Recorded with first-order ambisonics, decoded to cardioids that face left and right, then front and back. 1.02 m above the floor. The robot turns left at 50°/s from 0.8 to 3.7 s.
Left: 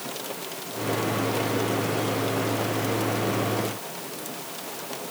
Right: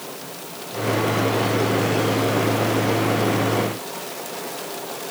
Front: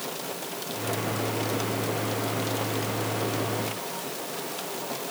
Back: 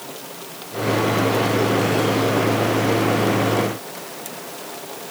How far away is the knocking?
I don't hear knocking.